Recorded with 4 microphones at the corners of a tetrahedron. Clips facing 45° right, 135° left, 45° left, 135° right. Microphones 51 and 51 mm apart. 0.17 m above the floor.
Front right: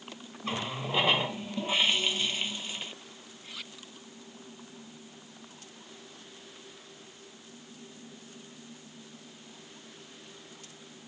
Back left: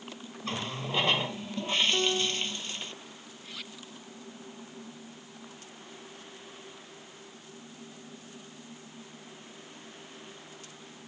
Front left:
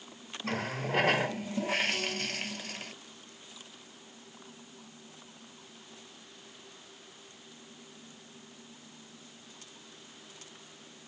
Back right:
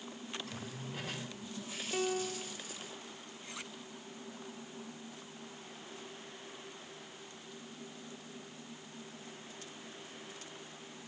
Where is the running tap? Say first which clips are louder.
Front right 1 dB, front left 11 dB; 35° left.